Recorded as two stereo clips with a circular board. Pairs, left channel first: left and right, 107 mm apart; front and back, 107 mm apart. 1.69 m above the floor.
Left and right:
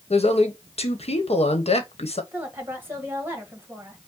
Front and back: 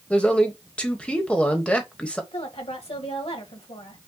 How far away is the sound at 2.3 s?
About 1.5 m.